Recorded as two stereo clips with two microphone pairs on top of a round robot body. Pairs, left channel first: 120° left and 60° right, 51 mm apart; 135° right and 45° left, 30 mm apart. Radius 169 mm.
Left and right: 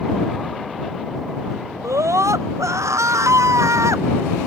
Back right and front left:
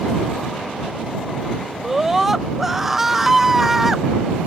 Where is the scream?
35° right.